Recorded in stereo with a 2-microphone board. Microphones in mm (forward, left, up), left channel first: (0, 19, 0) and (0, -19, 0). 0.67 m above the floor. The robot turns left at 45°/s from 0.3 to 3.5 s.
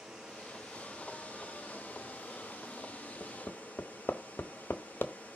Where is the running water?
170° right, 5.5 m; by 5.4 s 50° left, 5.5 m.